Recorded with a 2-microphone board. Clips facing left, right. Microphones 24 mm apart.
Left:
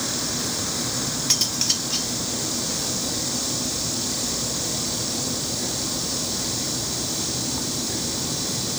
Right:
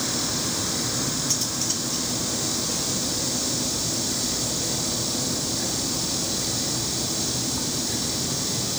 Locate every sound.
1.3 s cutlery clinking: 70° left (ahead or behind), 1.5 m